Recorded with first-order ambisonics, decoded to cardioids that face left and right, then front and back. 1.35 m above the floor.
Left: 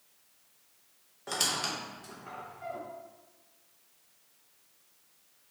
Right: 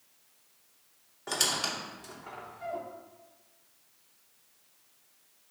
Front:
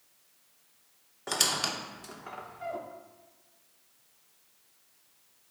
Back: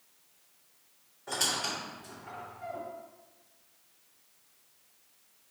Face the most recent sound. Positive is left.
turn(degrees=-10)